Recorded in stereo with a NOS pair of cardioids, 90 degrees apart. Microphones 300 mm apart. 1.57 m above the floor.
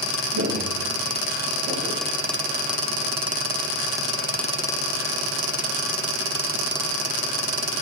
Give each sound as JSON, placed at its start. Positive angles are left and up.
{"t": 0.3, "sound": "footsteps", "azimuth_deg": -60, "distance_m": 8.0}